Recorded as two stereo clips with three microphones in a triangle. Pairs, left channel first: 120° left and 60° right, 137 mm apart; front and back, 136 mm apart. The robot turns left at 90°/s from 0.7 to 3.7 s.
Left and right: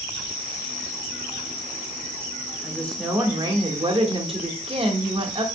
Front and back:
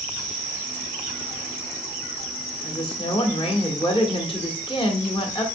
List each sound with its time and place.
2.6 s a woman speaking: 65° left, 1.1 m; by 5.5 s 35° right, 1.1 m